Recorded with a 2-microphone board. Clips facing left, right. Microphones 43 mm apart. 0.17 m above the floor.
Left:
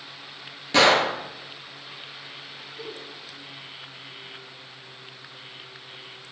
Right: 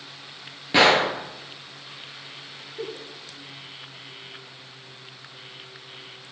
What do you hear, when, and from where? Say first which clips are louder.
0.7 s a gunshot: right 1 dB; 15° right (ahead or behind), 0.8 m
2.8 s a giggle: right 5 dB; 50° right (ahead or behind), 0.5 m